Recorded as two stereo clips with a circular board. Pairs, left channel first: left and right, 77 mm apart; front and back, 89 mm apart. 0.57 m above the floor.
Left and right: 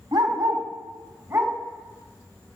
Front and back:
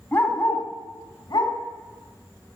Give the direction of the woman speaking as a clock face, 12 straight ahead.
No woman speaking in this recording.